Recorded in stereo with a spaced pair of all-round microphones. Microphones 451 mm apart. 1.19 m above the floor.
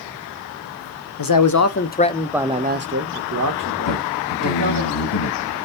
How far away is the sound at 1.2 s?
About 0.7 m.